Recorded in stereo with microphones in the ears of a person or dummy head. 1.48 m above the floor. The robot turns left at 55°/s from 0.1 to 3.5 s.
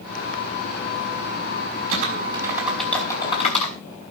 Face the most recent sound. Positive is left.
turn(degrees=40)  # may be behind; listen again after turning